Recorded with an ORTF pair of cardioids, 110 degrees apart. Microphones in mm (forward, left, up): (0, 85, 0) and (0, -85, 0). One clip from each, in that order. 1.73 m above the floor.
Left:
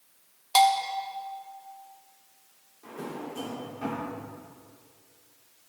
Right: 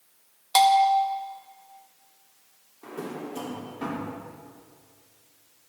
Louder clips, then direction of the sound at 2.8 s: Right 2 dB; 50° right.